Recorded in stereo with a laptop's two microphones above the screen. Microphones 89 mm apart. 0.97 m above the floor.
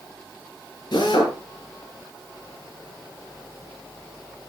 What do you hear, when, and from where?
0.9 s a drill: 50° left (ahead or behind), 7.5 m